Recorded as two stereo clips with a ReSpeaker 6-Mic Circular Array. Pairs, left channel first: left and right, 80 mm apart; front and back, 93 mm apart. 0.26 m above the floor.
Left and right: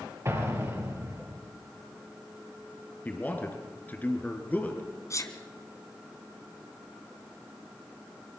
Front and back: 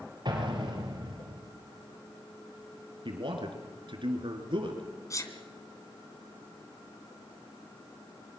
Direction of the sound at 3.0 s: 160° left.